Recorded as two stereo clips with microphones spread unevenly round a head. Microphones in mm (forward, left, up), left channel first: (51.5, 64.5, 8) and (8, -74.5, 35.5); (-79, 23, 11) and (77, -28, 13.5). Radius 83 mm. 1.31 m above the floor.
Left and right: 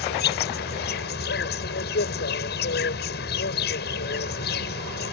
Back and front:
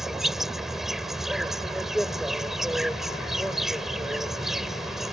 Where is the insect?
70° left.